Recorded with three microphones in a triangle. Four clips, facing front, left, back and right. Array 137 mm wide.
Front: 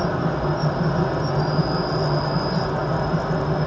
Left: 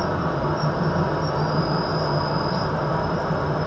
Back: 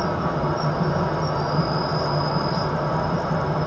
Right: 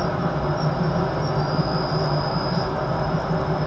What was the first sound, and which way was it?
An insect, 90° left.